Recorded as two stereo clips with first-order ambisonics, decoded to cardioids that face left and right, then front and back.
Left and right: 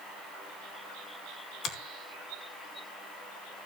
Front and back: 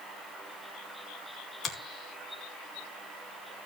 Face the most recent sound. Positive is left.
turn(degrees=60)